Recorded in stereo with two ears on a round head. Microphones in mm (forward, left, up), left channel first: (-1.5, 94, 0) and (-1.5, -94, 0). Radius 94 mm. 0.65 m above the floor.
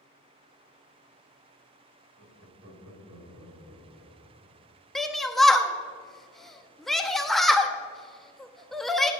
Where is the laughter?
75° right (ahead or behind), 2 m; by 4.5 s 80° right, 3.5 m.